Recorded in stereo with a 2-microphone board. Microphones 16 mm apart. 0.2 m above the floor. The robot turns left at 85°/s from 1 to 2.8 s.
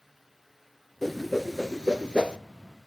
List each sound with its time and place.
1.0 s a whoosh: 20° left (ahead or behind), 0.8 m; by 2.4 s 75° right (ahead or behind), 0.8 m